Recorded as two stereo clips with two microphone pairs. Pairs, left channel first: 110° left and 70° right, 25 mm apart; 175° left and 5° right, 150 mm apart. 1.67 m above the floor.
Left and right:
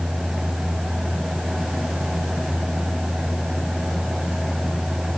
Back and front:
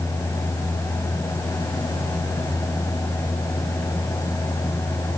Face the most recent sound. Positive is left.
No sound to turn to.